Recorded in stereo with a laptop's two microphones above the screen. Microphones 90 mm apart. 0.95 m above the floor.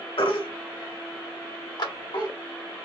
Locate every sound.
0.2 s a baby crying: 70° left (ahead or behind), 1.3 m
1.8 s a clap: 60° left (ahead or behind), 1.4 m